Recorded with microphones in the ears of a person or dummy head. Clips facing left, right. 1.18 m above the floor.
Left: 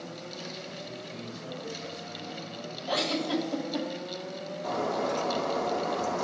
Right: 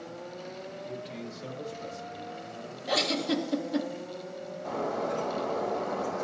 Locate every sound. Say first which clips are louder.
0.8 s a man speaking: right 2 dB; 25° right (ahead or behind), 1.0 m; by 2.2 s 65° right (ahead or behind), 1.5 m
2.9 s a giggle: right 1 dB; 25° right (ahead or behind), 1.1 m
4.6 s breaking glass: left 2 dB; 75° left (ahead or behind), 2.5 m